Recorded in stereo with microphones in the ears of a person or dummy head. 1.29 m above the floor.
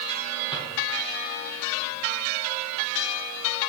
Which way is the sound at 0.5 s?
25° left (ahead or behind).